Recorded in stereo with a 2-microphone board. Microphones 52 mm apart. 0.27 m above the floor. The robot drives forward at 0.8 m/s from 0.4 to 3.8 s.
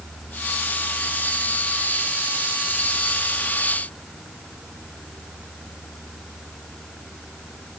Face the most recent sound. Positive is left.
No sound to turn to.